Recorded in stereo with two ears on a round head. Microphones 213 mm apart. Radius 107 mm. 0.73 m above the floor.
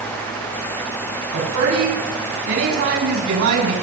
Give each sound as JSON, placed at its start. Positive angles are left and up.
{"t": 1.3, "sound": "a woman speaking", "side_deg": -70, "distance_m": 7.0}